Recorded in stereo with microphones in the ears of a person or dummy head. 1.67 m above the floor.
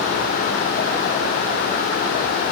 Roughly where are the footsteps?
No footsteps in this recording.